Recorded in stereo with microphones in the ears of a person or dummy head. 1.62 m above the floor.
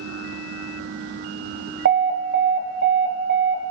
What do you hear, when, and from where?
1.9 s an alarm: 45° right (ahead or behind), 1.6 m